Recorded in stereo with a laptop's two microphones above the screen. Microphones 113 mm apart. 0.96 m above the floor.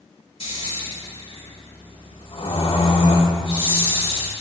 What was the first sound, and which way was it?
Snoring, 55° left (ahead or behind).